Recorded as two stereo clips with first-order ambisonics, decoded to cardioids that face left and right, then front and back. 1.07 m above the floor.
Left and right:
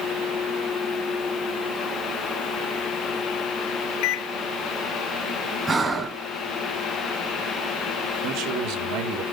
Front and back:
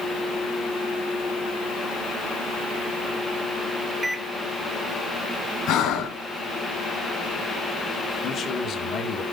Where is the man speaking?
55° right, 2.5 m.